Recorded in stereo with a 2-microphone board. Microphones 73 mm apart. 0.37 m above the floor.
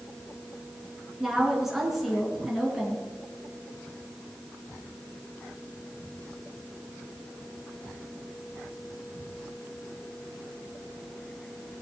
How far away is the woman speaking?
About 5 m.